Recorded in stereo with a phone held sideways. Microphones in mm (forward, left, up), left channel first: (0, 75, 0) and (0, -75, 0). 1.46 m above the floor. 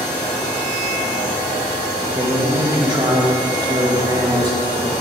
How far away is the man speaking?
About 2.5 m.